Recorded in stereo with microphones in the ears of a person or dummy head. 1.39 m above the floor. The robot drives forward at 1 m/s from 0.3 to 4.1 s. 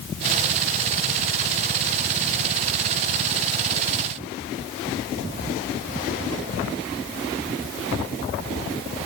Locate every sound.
Only background noise.